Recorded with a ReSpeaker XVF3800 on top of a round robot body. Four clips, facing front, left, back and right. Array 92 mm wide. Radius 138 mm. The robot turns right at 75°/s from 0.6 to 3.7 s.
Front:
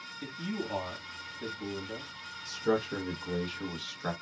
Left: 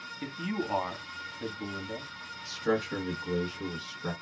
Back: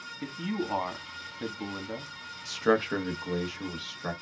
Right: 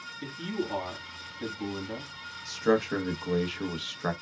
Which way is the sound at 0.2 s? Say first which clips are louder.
Even, back 4 dB; 120° left.